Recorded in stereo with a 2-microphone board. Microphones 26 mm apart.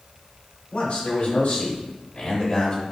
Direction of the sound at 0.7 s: 45° left (ahead or behind).